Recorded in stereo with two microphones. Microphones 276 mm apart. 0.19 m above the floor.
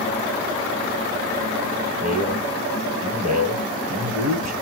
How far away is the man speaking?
About 4.5 m.